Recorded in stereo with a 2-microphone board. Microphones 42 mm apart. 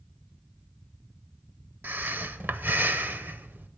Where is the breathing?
55° right (ahead or behind), 0.6 m.